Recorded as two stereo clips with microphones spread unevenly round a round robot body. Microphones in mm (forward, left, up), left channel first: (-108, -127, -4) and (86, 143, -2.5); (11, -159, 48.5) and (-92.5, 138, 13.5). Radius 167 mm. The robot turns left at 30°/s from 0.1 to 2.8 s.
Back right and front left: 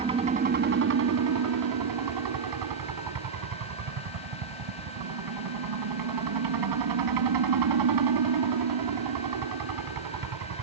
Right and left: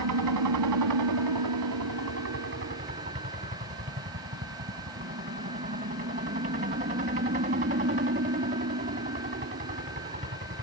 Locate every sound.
0.0 s a helicopter: 125° left; by 10.6 s 45° left